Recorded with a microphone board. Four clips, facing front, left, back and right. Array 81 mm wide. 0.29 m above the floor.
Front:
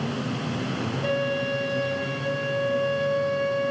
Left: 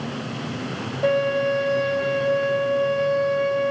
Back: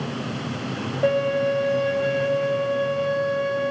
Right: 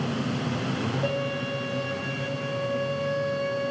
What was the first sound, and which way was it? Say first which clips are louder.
A violin: left 8 dB, back 7 dB; 155° left.